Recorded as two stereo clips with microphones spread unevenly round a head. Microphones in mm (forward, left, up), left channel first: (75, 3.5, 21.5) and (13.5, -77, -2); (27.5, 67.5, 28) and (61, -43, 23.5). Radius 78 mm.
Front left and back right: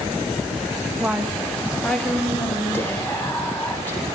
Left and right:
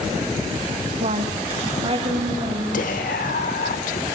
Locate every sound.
1.0 s a woman speaking: 45° right, 3 m; by 2.6 s 25° right, 5 m
2.7 s whispering: 130° left, 2.5 m